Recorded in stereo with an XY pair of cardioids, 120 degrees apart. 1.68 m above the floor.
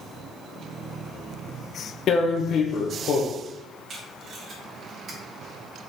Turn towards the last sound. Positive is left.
turn(degrees=-50)